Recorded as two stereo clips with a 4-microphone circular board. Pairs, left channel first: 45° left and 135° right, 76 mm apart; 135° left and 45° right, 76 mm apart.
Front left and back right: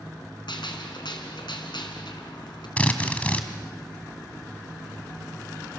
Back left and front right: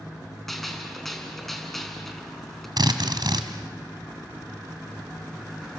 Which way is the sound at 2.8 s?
25° right.